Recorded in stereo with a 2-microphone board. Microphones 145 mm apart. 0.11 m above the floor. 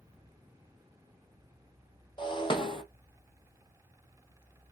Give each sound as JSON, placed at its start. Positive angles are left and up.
{"t": 2.2, "sound": "breaking glass", "side_deg": 35, "distance_m": 1.0}